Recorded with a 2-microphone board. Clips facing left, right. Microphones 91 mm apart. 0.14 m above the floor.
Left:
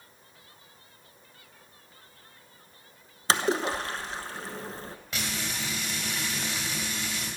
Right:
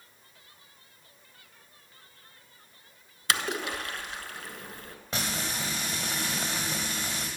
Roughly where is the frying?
Right.